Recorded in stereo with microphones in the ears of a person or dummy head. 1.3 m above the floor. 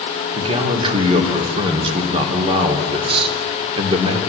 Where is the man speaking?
35° right (ahead or behind), 3 m.